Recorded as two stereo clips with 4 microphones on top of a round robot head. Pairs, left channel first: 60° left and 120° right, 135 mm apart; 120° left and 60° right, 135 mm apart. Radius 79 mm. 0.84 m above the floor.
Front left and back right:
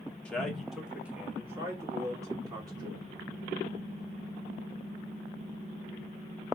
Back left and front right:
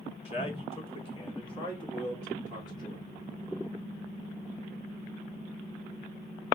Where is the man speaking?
140° left, 1.2 m; by 3.0 s straight behind, 2.5 m.